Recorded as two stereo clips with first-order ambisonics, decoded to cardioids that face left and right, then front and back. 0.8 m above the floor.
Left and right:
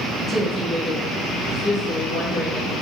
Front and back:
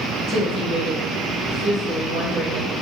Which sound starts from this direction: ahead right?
A woman speaking, at 0.3 s.